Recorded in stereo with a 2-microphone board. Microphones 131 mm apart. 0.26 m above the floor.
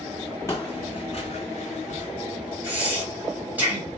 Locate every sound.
0.5 s footsteps: 25° left (ahead or behind), 0.8 m; by 2.1 s 70° left (ahead or behind), 1.2 m
2.6 s breathing: 15° right (ahead or behind), 1.7 m